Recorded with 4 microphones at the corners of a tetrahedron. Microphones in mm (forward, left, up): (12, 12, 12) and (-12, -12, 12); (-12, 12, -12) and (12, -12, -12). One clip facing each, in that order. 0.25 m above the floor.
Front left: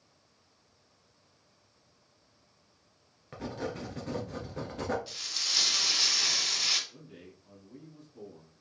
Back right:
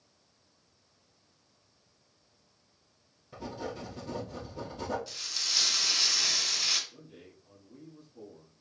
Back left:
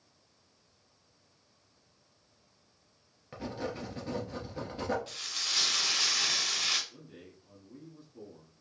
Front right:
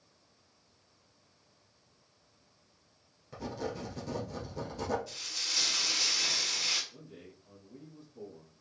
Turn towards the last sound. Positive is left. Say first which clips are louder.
# front left 1 dB, even
turn(degrees=85)